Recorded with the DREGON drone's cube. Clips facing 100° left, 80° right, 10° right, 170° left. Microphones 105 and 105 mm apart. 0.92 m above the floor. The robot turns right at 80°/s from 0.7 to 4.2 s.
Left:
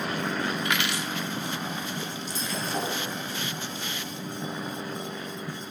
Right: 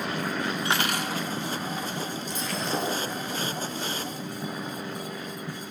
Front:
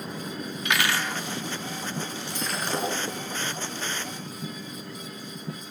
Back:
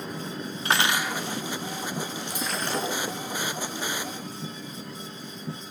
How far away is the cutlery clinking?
About 0.9 m.